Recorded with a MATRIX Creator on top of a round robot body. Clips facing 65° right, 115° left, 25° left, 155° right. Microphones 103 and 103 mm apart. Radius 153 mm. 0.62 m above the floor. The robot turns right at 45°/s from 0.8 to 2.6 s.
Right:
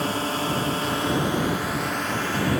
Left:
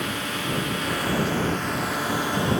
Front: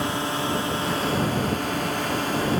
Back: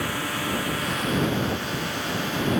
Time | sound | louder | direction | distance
0.0 | a drone | right 4 dB, front 3 dB | 30° right | ?